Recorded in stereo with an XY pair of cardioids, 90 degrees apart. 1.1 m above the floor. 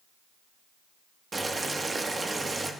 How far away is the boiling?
About 1.4 m.